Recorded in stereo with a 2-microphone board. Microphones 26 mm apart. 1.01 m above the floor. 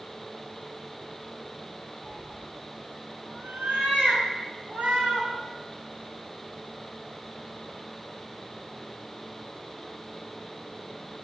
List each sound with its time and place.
2.0 s a cat meowing: 85° right, 2.5 m